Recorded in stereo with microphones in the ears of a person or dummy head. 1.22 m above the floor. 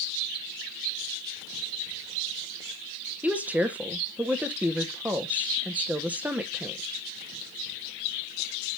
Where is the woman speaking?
10° right (ahead or behind), 0.7 m.